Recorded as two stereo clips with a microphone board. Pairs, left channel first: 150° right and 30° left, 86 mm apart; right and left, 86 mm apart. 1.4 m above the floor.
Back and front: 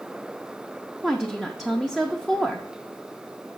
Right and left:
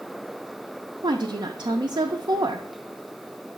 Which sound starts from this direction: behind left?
A woman speaking, at 1.0 s.